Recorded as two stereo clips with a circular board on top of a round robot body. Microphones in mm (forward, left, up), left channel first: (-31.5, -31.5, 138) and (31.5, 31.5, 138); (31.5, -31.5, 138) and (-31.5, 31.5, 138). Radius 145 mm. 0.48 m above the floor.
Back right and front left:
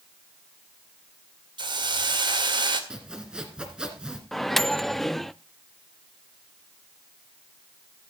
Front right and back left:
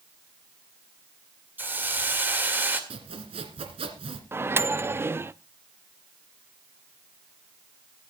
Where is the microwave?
140° left, 0.6 m.